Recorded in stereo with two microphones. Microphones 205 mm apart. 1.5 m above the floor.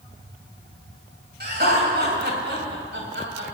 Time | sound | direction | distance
1.4 | laughter | 55° right (ahead or behind) | 5.5 m